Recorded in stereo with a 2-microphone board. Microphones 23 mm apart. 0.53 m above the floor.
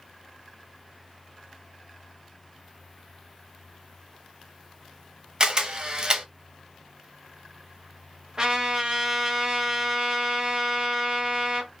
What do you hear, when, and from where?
5.4 s a camera shutter: 35° right (ahead or behind), 0.7 m
8.4 s a trumpet: 25° right (ahead or behind), 1.2 m